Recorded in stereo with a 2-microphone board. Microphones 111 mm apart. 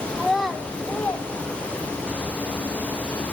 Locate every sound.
0.1 s a child speaking: 5° right (ahead or behind), 1.5 m; by 2.2 s 35° left (ahead or behind), 2.5 m